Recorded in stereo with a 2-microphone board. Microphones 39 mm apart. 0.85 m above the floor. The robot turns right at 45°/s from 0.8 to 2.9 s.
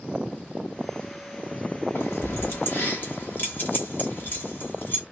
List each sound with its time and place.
1.9 s keys jangling: 75° left (ahead or behind), 1.4 m; by 5.0 s 50° left (ahead or behind), 1.4 m